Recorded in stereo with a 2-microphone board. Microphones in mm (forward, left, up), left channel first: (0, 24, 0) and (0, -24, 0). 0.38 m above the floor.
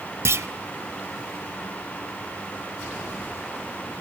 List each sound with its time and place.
0.2 s a clunk: 65° right (ahead or behind), 0.6 m